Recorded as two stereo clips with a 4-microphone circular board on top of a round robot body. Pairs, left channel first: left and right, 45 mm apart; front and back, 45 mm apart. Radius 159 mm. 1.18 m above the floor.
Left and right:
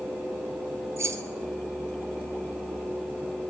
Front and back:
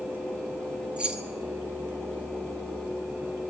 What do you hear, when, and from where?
1.0 s keys jangling: 110° right, 1.2 m